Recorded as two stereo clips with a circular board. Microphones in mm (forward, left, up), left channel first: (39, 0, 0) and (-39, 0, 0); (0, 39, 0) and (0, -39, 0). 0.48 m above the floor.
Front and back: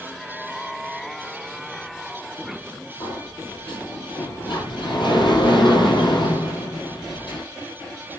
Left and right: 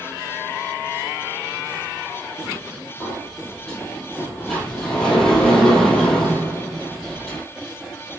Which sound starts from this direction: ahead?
A sliding door, at 3.0 s.